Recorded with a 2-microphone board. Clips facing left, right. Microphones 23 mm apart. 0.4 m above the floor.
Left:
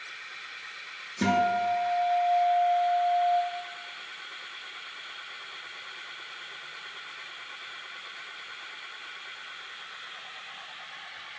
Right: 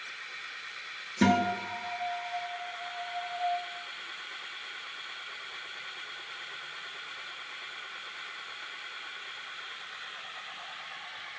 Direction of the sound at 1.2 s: 15° right (ahead or behind).